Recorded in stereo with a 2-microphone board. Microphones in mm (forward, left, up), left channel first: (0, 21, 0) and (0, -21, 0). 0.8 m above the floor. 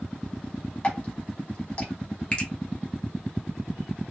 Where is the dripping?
25° left (ahead or behind), 1.2 m.